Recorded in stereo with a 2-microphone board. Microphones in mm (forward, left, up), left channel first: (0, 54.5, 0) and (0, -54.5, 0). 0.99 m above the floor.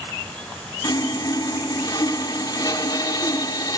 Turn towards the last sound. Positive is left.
turn(degrees=40)  # may be behind; listen again after turning